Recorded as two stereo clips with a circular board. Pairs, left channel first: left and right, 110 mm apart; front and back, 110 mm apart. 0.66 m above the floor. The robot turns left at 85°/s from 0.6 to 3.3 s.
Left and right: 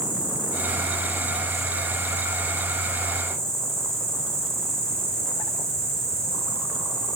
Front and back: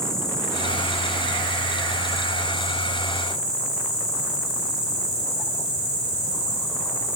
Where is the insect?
85° left, 3 m; by 7.2 s 145° right, 3 m.